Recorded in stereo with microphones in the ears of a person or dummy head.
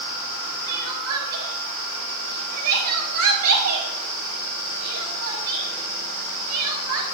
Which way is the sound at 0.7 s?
80° right.